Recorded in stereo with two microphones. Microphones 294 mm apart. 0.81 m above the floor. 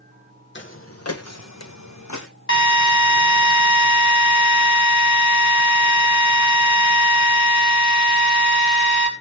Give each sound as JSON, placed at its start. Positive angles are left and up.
{"t": 0.6, "sound": "footsteps", "side_deg": 40, "distance_m": 1.5}
{"t": 2.5, "sound": "a drill", "side_deg": 45, "distance_m": 3.0}